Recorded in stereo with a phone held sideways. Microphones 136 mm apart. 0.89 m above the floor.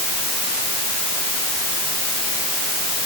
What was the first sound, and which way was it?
Only background noise.